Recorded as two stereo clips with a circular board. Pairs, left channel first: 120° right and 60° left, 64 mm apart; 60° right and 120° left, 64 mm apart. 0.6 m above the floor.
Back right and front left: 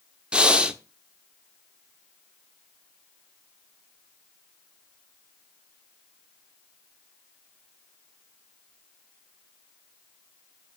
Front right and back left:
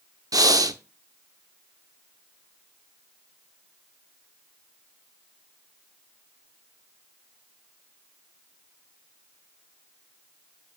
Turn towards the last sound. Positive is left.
turn(degrees=135)